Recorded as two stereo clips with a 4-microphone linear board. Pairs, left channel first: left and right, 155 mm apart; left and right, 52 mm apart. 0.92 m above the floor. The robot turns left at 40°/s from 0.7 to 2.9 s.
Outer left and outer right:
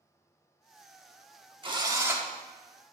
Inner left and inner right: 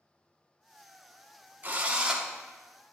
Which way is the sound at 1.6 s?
35° right (ahead or behind).